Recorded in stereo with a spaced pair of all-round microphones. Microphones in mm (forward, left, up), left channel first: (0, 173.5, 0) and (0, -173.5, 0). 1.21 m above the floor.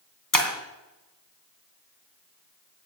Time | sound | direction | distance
0.3 | breaking glass | 65° left (ahead or behind) | 2.5 m